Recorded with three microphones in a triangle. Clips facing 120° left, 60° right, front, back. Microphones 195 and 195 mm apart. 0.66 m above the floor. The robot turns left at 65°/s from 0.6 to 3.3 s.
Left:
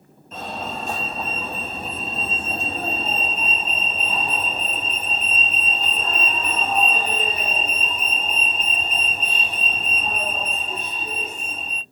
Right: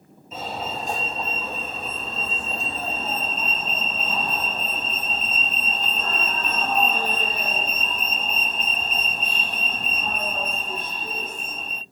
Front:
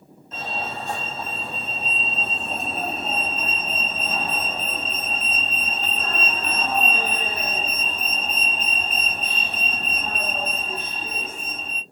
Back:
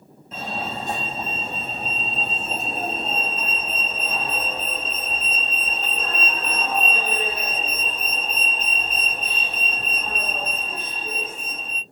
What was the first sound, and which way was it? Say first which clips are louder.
A fire alarm: even, back 1 dB; 130° right.